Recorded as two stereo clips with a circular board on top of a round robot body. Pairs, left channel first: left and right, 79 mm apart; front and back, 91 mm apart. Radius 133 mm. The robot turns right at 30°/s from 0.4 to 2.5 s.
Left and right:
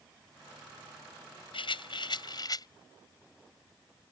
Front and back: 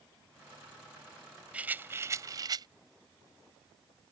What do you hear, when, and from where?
1.5 s a rattle: 105° left; by 2.7 s 130° left